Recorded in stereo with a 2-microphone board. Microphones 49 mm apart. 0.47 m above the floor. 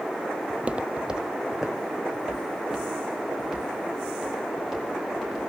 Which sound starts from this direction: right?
Footsteps, at 0.5 s.